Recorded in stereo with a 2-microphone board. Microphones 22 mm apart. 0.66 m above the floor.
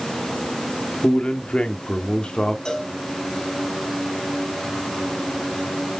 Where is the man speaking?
55° left (ahead or behind), 1.6 m; by 2.5 s 45° left (ahead or behind), 1.9 m.